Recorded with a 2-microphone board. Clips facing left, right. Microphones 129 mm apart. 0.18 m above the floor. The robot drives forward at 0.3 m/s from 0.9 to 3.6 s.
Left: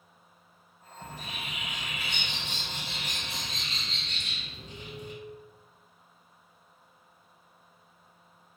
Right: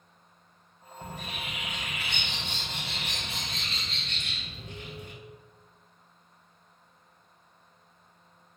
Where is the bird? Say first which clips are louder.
Right 2 dB; 60° right (ahead or behind), 1.5 m; by 5.1 s 65° right (ahead or behind), 1.4 m.